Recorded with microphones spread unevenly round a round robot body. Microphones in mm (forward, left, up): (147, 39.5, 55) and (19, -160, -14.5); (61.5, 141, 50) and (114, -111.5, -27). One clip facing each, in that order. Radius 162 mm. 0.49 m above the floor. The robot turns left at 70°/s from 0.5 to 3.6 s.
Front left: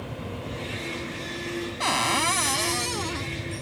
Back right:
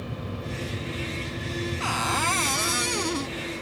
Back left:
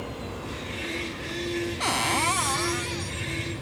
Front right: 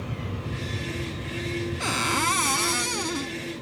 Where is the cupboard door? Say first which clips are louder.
Front left 2 dB, even; 20° left; by 3.4 s 85° right.